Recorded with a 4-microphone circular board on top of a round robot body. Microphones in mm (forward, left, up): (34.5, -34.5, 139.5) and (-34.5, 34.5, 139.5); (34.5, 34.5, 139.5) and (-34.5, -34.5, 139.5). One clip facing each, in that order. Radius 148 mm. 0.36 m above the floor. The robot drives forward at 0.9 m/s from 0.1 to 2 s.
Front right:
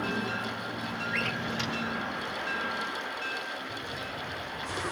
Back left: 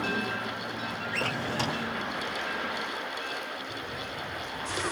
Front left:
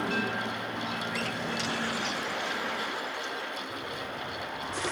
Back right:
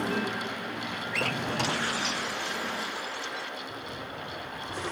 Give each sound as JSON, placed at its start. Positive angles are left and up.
{"t": 1.1, "sound": "a drawer", "azimuth_deg": -165}